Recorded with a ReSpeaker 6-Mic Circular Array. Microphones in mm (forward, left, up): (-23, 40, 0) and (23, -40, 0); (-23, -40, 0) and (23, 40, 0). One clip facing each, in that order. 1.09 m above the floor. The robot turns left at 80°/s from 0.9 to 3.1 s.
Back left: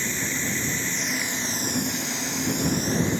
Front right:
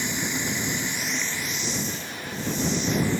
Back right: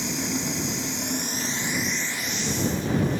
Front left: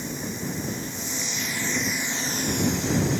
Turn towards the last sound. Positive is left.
turn(degrees=50)